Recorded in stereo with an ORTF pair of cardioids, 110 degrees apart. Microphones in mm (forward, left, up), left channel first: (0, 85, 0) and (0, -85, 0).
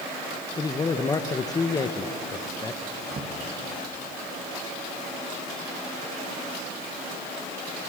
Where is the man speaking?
20° left, 1.0 m.